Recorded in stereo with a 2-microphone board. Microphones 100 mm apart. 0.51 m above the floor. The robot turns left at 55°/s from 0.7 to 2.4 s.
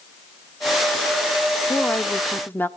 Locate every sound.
1.7 s a woman speaking: 10° left (ahead or behind), 0.8 m; by 2.7 s 20° left (ahead or behind), 0.8 m